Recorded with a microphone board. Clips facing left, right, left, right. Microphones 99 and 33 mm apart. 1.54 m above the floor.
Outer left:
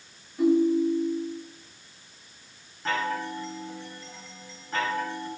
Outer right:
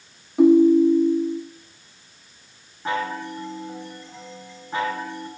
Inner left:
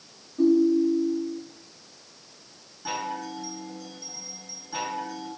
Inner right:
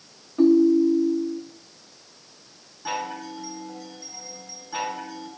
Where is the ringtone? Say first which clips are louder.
Outer right 8 dB, inner right 3 dB; 70° right (ahead or behind), 2.5 m.